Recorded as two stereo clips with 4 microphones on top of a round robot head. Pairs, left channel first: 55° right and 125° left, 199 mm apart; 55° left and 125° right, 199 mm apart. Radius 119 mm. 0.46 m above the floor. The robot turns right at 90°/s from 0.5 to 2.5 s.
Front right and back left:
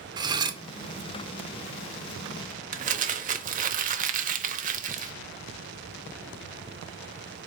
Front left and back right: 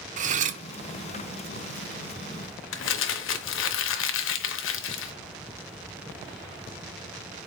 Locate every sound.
0.2 s cutlery clinking: 170° right, 0.6 m; by 0.6 s 160° right, 0.6 m
2.7 s crumpling: 75° left, 0.7 m